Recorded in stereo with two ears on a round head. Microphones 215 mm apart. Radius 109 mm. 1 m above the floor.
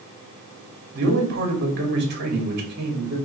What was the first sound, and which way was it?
A man speaking, 45° right (ahead or behind).